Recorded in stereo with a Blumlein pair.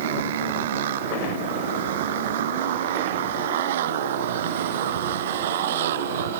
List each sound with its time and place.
0.0 s a motorcycle: 55° right; by 6.4 s 60° right